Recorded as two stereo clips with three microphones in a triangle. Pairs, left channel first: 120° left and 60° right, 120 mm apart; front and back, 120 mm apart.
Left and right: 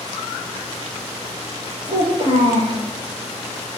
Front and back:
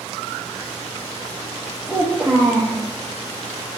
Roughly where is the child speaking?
Right.